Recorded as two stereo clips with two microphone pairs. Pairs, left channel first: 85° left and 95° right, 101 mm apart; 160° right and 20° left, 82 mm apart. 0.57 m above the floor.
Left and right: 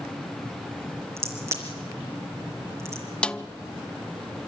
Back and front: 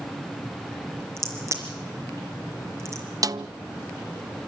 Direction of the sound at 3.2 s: 5° left.